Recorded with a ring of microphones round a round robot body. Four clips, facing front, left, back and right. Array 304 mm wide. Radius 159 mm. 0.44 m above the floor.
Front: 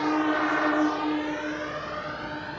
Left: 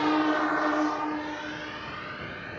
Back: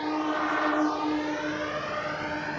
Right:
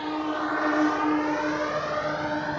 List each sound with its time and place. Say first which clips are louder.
0.0 s a drone: left 4 dB, front 3 dB; 55° left; by 2.6 s 95° right